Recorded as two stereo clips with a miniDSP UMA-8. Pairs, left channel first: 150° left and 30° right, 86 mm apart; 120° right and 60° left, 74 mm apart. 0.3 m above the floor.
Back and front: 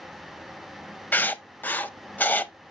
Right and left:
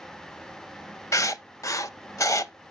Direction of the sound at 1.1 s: 145° right.